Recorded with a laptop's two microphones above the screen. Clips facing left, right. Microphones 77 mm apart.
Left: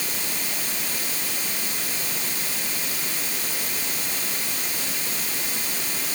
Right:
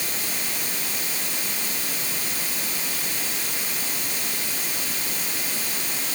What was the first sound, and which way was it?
Only background noise.